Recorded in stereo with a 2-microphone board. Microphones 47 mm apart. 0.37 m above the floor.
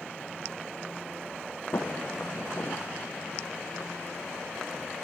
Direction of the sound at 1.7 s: 70° left (ahead or behind).